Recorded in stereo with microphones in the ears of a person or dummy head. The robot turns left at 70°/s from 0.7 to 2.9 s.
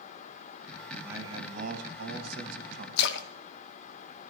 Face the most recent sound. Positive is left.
turn(degrees=70)  # may be behind; listen again after turning